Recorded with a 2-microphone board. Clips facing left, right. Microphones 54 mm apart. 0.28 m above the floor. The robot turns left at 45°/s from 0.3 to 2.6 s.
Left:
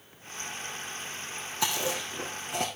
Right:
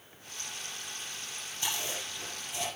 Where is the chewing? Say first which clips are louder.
Left 6 dB; 75° left (ahead or behind), 3 m; by 2.7 s 60° left (ahead or behind), 3 m.